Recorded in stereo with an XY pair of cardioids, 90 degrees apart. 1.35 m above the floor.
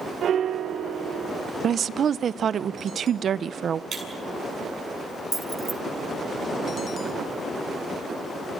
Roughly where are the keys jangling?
Ahead right.